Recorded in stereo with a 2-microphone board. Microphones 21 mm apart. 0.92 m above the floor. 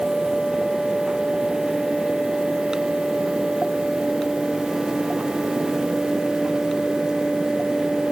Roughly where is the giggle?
I don't hear a giggle.